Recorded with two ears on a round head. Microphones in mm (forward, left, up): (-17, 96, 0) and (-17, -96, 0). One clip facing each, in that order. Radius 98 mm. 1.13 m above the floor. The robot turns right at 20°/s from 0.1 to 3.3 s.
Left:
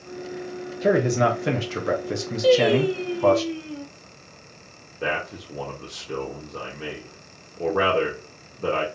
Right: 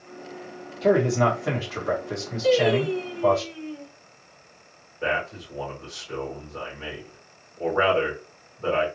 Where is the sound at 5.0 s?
45° left (ahead or behind), 1.3 m.